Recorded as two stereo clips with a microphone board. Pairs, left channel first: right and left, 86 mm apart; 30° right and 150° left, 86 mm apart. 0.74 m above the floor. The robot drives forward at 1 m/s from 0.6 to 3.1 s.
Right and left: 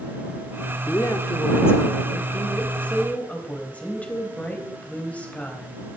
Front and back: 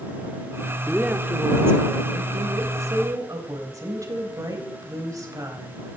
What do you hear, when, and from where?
0.9 s a woman speaking: 130° right, 1.4 m; by 5.8 s 165° right, 3.5 m